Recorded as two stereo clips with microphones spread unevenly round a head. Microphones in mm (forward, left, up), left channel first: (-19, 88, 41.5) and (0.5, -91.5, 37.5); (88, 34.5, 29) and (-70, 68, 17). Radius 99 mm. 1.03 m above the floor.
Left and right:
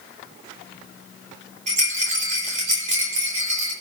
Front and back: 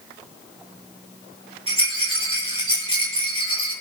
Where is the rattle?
130° right, 4 m.